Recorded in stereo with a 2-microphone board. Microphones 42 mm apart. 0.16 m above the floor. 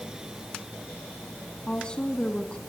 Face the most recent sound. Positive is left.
turn(degrees=20)  # may be behind; listen again after turning